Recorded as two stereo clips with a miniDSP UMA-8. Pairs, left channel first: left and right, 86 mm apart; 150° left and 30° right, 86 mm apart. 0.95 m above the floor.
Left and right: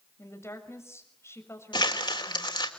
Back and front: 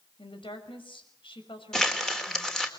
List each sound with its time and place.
0.2 s a woman speaking: 150° left, 6 m
1.7 s crumpling: 65° left, 3 m